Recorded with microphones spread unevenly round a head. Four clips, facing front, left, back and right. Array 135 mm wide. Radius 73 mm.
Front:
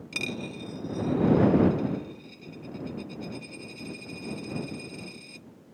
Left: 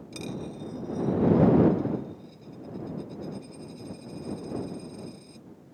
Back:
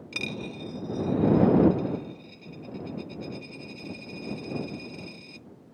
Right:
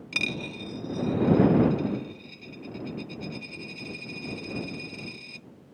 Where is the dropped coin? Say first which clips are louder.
Right 2 dB, even; 75° right.